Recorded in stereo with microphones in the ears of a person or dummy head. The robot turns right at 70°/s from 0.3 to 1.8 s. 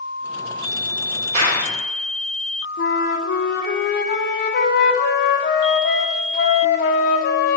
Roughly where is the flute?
Left.